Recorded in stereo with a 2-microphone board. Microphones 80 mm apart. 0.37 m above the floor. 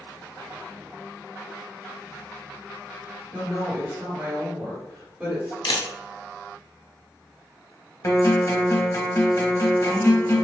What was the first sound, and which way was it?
A woman speaking, 30° right (ahead or behind).